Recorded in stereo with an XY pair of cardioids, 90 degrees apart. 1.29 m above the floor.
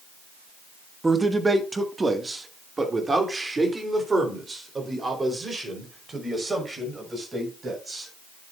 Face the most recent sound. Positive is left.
turn(degrees=-30)